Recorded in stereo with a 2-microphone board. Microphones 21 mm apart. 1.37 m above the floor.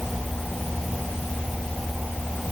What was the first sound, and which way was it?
Only background noise.